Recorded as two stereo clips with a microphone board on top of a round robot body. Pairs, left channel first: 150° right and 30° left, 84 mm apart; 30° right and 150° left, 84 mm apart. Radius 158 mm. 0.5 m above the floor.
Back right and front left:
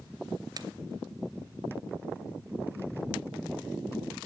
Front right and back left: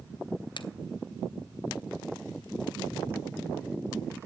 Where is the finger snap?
10° right, 1.4 m.